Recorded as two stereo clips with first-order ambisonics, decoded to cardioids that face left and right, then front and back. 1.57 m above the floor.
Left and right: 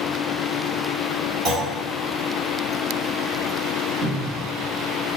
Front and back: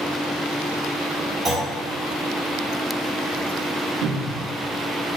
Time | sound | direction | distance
1.4 | a clunk | 110° right | 2.0 m
4.0 | a cupboard door | 160° right | 0.8 m